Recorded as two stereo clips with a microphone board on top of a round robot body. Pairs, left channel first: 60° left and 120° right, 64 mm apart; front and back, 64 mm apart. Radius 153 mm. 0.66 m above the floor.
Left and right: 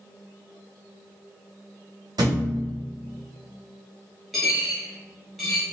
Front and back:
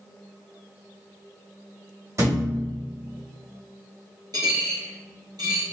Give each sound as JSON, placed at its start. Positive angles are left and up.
{"t": 2.2, "sound": "a thud", "azimuth_deg": -135, "distance_m": 1.3}
{"t": 4.3, "sound": "a dropped coin", "azimuth_deg": 155, "distance_m": 0.6}